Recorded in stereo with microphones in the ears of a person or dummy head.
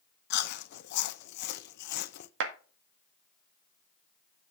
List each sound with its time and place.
0.3 s chewing: 55° left (ahead or behind), 0.8 m
2.4 s a clap: 75° right (ahead or behind), 1.5 m